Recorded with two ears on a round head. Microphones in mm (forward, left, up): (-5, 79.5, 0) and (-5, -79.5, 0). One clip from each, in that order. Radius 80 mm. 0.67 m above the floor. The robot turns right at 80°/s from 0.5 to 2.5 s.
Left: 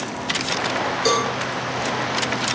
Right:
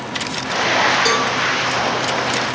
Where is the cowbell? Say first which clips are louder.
Right 3 dB; 5° right (ahead or behind), 2.5 m; by 1.3 s 25° right (ahead or behind), 2.5 m.